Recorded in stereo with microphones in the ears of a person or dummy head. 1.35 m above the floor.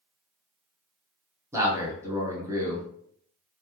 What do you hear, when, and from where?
1.5 s a man speaking: 20° right (ahead or behind), 0.9 m